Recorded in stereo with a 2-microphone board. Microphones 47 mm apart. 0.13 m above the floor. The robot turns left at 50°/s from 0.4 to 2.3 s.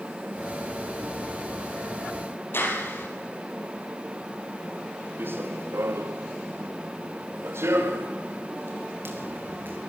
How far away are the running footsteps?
About 2 m.